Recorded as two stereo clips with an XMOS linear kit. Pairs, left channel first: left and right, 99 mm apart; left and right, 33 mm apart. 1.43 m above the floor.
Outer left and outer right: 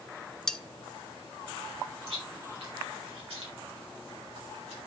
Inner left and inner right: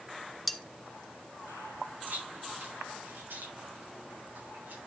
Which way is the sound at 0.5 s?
5° left (ahead or behind).